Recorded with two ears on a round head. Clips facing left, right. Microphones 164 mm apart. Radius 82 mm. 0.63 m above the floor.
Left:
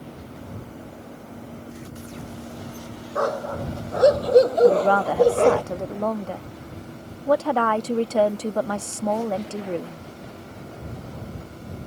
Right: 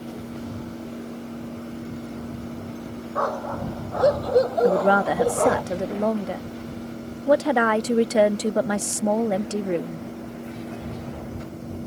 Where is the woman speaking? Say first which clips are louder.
Left 2 dB; 20° right (ahead or behind).